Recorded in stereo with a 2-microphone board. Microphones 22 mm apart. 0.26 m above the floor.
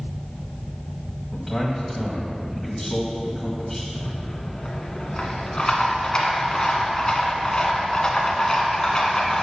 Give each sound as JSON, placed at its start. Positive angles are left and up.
{"t": 1.3, "sound": "a man speaking", "side_deg": 5, "distance_m": 1.5}
{"t": 3.9, "sound": "a rattle", "side_deg": 35, "distance_m": 1.5}